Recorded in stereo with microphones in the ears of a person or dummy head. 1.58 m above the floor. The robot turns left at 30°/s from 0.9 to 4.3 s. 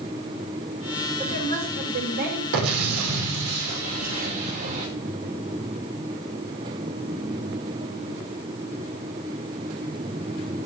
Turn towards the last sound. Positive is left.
turn(degrees=-145)